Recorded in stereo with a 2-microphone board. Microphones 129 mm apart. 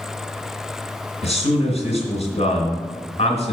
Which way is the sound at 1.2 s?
55° left (ahead or behind).